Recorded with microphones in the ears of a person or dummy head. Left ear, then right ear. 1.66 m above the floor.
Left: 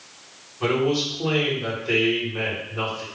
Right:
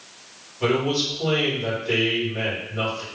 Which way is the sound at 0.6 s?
15° left (ahead or behind).